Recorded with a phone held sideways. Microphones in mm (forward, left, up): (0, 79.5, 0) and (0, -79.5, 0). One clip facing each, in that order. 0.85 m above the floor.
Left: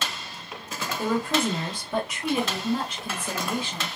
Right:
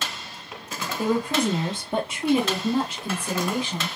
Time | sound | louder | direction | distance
1.0 | a woman speaking | right 2 dB | 10° right (ahead or behind) | 1.0 m